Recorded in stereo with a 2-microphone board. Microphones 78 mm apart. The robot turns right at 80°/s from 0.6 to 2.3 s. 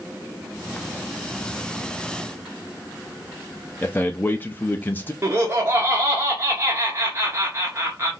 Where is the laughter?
30° right (ahead or behind), 1.0 m.